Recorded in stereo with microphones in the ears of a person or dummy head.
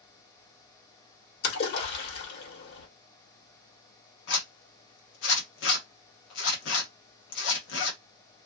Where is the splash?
60° left (ahead or behind), 1.1 m.